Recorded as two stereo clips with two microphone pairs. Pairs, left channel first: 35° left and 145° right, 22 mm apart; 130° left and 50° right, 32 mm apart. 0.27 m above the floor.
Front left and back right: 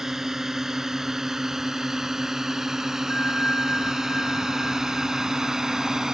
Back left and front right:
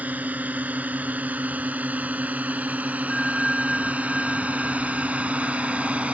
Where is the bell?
50° left.